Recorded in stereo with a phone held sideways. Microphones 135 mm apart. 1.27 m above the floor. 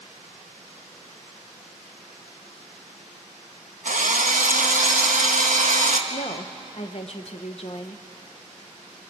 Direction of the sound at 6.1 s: 50° left (ahead or behind).